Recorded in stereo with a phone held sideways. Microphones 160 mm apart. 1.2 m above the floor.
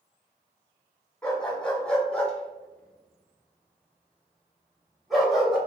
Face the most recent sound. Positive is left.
turn(degrees=-5)  # may be behind; listen again after turning